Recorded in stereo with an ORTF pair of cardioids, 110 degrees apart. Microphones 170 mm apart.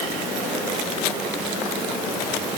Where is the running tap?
No running tap in this recording.